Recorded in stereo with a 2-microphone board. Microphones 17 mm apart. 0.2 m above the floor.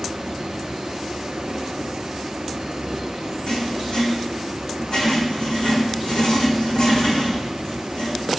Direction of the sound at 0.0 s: 65° right (ahead or behind).